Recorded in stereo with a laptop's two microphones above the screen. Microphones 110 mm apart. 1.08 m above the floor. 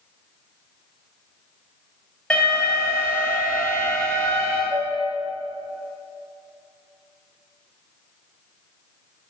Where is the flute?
30° right (ahead or behind), 3.5 m.